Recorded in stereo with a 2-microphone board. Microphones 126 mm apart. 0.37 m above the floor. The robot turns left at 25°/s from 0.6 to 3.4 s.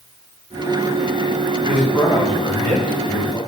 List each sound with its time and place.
1.7 s a man speaking: 70° left, 1.9 m; by 3.4 s 25° left, 1.9 m